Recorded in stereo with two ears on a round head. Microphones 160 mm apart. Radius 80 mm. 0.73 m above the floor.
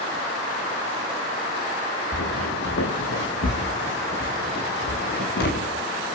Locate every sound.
2.1 s footsteps: 80° left, 5 m; by 5.7 s 60° left (ahead or behind), 7 m